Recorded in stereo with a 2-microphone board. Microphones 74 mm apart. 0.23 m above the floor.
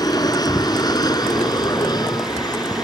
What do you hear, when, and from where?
0.0 s an aircraft: 60° left (ahead or behind); by 2.9 s 65° left (ahead or behind)